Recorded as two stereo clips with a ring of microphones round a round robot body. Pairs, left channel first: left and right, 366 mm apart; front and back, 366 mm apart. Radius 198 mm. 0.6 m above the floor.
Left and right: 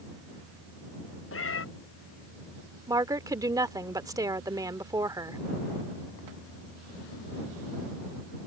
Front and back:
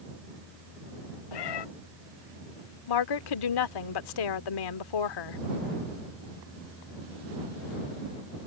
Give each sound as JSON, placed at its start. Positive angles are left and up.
{"t": 1.3, "sound": "a cat meowing", "azimuth_deg": 35}
{"t": 2.9, "sound": "a woman speaking", "azimuth_deg": -10}